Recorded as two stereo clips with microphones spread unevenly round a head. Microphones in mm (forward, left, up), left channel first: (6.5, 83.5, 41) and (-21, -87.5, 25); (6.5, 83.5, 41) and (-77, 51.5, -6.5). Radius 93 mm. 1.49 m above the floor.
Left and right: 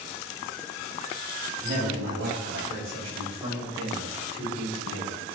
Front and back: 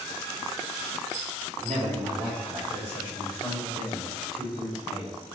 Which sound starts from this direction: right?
A man speaking, at 1.6 s.